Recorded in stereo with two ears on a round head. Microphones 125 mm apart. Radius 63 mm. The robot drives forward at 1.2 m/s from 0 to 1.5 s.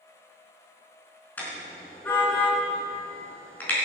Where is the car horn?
15° left (ahead or behind), 4 m.